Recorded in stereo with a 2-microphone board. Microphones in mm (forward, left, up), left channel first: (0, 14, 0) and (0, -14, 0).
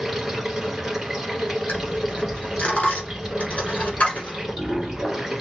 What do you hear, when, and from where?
0.0 s running water: 15° right (ahead or behind), 1.8 m
1.7 s a dropped coin: 55° left (ahead or behind), 1.6 m